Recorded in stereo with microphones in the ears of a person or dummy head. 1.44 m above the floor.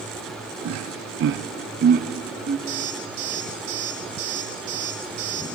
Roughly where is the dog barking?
I don't hear a dog barking.